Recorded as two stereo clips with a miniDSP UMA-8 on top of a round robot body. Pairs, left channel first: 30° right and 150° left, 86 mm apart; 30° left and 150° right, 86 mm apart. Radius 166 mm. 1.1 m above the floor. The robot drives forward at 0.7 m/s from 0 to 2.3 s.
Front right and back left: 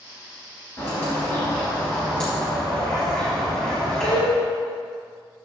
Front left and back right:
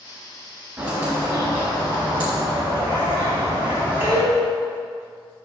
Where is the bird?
85° right, 2.5 m; by 4.2 s 110° right, 2.5 m.